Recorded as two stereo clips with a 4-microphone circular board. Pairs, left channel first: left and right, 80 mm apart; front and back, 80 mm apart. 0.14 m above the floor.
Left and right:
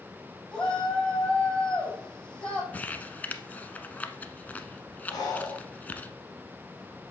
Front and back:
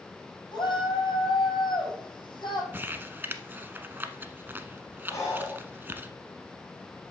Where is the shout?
15° left, 5.5 m.